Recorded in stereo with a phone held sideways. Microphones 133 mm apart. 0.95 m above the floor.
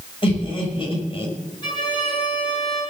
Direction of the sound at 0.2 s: 45° left (ahead or behind).